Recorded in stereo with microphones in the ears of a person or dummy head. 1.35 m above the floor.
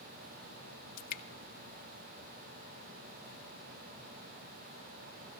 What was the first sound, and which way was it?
Dripping, 55° left (ahead or behind).